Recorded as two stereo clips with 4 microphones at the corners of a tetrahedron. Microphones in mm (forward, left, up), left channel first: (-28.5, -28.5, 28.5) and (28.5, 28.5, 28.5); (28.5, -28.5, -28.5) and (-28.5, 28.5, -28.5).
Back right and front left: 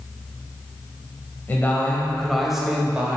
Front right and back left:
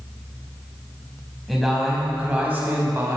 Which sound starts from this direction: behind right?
A man speaking, at 1.5 s.